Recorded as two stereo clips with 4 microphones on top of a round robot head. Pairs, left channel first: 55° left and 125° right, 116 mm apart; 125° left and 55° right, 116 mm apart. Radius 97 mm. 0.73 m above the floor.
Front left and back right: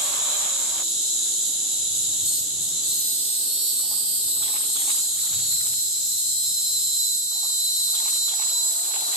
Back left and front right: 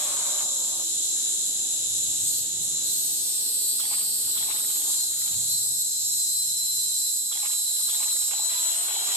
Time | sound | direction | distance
0.0 | an insect | 55° right | 1.6 m